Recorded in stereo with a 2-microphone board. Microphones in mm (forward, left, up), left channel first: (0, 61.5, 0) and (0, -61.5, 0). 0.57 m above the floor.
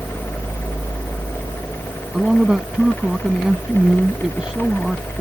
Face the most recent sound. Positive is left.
turn(degrees=-5)  # may be behind; listen again after turning